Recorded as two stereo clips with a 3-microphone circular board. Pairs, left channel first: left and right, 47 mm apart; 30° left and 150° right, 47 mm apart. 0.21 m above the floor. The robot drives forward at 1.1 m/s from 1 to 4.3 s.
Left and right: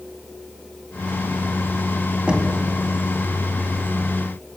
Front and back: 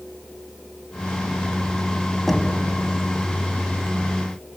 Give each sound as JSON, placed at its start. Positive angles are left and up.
{"t": 2.3, "sound": "knocking", "azimuth_deg": -50, "distance_m": 1.0}